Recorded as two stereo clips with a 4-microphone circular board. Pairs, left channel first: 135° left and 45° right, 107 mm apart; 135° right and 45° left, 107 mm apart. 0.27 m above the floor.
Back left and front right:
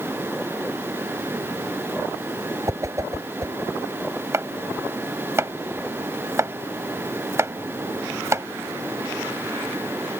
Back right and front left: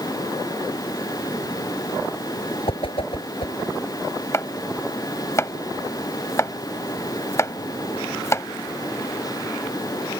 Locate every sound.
2.7 s a whoosh: 105° right
4.3 s chopping: 90° right